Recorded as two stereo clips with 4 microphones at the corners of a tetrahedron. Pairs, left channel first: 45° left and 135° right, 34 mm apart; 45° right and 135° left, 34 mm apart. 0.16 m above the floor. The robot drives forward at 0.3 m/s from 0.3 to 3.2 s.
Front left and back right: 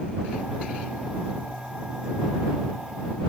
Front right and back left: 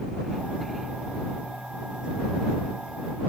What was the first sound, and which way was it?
Only background noise.